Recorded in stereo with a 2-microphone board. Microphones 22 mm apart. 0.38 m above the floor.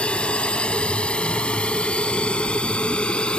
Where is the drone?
60° left (ahead or behind); by 3.4 s 55° left (ahead or behind).